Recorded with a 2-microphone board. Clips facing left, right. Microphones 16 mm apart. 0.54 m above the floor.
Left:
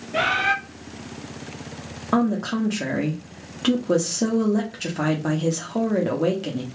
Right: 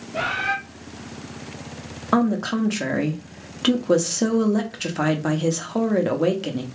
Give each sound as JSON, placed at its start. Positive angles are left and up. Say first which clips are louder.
{"t": 0.1, "sound": "a bird", "louder": "left 3 dB", "side_deg": 55, "distance_m": 1.7}
{"t": 2.1, "sound": "a woman speaking", "louder": "right 1 dB", "side_deg": -20, "distance_m": 0.6}